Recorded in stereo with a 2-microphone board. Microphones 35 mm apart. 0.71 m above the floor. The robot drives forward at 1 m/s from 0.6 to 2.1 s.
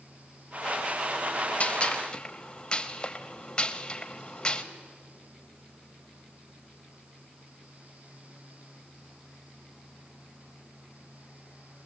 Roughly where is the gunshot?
Left.